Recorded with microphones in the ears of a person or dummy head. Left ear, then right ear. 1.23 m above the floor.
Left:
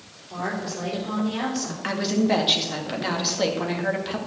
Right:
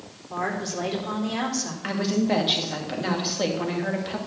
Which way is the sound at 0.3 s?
75° right (ahead or behind).